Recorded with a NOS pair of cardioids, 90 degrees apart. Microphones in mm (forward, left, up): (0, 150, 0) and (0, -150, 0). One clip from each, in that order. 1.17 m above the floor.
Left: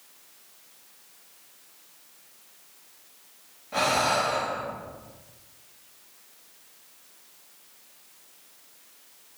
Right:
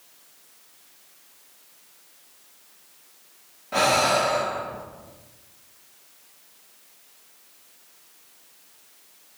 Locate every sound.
3.7 s breathing: 30° right, 0.8 m